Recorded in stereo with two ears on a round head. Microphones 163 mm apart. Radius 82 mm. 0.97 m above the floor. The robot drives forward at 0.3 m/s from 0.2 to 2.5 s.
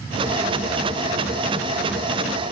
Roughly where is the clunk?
I don't hear a clunk.